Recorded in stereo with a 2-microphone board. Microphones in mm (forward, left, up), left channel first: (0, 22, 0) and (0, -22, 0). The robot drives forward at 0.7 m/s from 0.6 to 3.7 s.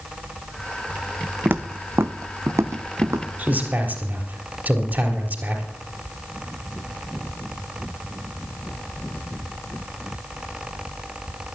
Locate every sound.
1.4 s footsteps: 45° right (ahead or behind), 0.7 m; by 3.3 s 85° right, 1.2 m
3.4 s a man speaking: 40° right (ahead or behind), 3.5 m